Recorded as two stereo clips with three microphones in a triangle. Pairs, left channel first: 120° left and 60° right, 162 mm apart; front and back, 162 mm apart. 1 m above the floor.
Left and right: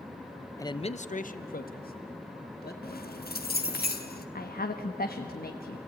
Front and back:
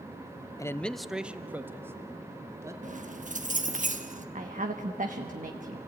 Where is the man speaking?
60° left, 0.5 m; by 2.7 s 110° left, 2.5 m.